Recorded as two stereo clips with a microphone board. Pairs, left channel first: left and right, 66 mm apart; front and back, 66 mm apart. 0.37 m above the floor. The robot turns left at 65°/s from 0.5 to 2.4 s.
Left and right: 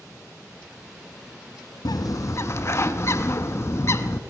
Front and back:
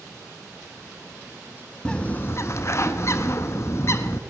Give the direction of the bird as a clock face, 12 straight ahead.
9 o'clock.